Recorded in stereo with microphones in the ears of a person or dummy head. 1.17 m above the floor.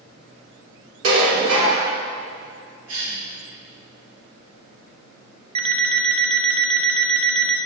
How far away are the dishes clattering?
About 2.5 m.